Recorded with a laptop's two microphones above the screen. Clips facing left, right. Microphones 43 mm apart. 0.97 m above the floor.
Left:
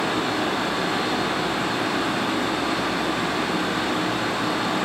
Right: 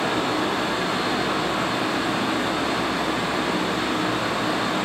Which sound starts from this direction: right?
A fan, at 0.0 s.